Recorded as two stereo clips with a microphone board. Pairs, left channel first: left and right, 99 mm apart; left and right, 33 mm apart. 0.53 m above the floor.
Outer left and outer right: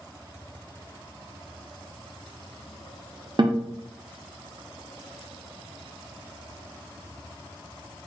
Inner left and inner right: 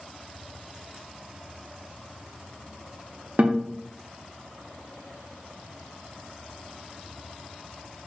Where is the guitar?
50° right (ahead or behind), 0.5 m.